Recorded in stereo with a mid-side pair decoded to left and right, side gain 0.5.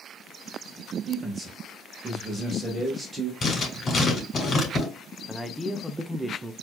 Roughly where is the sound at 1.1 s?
Ahead right.